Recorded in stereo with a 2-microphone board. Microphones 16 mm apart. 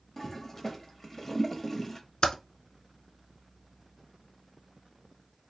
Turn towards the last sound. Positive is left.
turn(degrees=70)  # may be behind; listen again after turning